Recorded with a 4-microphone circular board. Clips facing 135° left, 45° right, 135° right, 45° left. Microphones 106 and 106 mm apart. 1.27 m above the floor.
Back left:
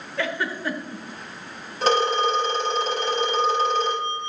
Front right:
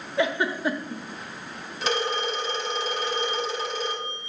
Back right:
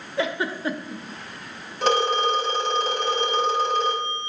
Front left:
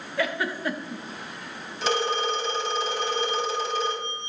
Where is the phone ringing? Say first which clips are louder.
Back left 7 dB, back right 5 dB; 175° right, 3 m.